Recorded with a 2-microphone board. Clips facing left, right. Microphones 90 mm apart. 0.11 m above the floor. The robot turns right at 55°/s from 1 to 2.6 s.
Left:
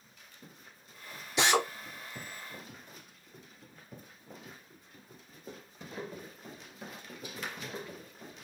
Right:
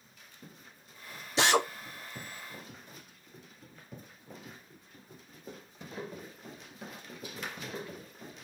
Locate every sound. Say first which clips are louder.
1.4 s a drill: right 1 dB; 30° right (ahead or behind), 2.0 m; by 1.7 s 40° right (ahead or behind), 2.0 m